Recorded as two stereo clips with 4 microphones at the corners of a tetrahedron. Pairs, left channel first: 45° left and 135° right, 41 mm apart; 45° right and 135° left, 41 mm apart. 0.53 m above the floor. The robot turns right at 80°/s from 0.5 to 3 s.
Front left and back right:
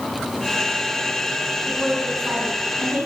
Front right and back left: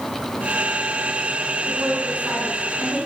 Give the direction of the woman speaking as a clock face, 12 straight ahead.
8 o'clock.